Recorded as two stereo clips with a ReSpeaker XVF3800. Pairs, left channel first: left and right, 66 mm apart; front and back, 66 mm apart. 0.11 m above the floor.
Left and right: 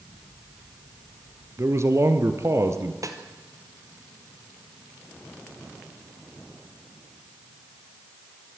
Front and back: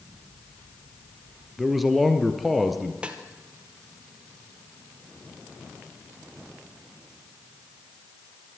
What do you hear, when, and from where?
1.6 s a man speaking: 90° right, 1.7 m
3.0 s a snare drum: 110° right, 1.7 m